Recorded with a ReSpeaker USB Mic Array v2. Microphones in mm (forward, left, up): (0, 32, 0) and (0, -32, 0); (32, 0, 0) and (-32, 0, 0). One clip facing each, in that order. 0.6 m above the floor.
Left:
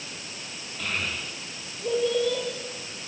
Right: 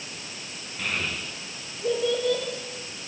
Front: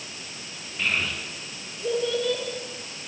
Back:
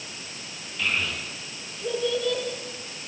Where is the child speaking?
65° right, 8 m.